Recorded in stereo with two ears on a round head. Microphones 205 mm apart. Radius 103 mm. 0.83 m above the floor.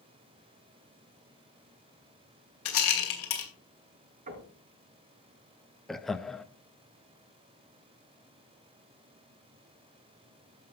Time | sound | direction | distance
2.6 | a rattle | 60° left (ahead or behind) | 2.5 m
4.3 | knocking | 35° right (ahead or behind) | 5.5 m
5.9 | laughter | centre (ahead or behind) | 0.6 m